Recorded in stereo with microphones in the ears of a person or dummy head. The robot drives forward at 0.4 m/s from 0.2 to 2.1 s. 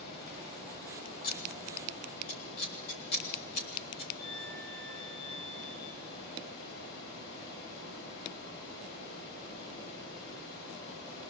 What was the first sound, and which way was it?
Running water, 55° left (ahead or behind).